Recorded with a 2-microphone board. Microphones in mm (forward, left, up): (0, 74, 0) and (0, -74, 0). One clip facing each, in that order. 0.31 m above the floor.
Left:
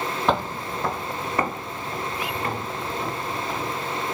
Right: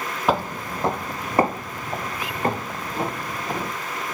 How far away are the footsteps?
About 0.5 m.